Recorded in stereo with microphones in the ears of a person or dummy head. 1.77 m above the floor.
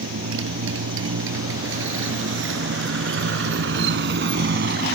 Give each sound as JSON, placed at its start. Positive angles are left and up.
{"t": 0.0, "sound": "a motorcycle", "side_deg": -80}